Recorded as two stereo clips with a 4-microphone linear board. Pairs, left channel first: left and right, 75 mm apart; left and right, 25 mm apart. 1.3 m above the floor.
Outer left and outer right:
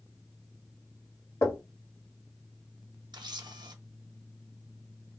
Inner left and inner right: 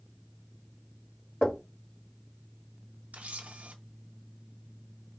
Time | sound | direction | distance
1.4 | knocking | 50° left (ahead or behind) | 1.7 m
3.1 | a camera shutter | 75° right (ahead or behind) | 0.7 m